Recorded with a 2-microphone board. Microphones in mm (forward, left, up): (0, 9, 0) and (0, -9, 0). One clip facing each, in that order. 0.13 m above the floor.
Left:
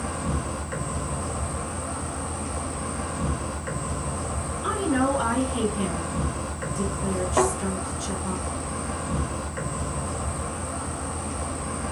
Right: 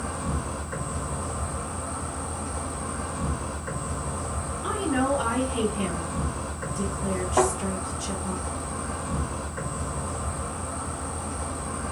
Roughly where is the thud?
Left.